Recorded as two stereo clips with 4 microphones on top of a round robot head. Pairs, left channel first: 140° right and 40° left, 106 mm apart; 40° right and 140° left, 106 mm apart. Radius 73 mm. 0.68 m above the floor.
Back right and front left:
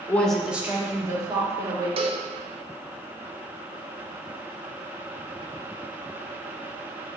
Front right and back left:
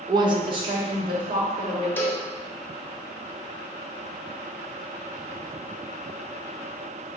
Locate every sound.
0.1 s a woman speaking: 160° left, 0.6 m; by 1.9 s 95° left, 2 m
2.0 s a cowbell: 30° left, 0.6 m